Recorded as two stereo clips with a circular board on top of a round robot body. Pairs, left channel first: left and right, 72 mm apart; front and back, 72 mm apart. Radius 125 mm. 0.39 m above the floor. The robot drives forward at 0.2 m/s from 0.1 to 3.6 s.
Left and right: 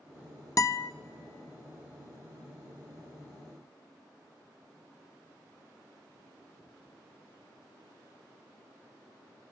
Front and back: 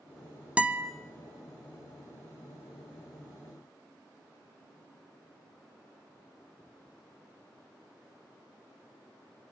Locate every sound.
0.6 s a guitar: 110° left, 0.7 m; by 0.9 s 115° left, 0.7 m